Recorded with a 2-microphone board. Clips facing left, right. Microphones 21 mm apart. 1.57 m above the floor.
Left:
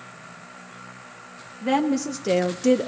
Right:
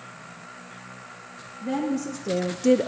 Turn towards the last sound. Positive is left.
turn(degrees=-25)  # may be behind; listen again after turning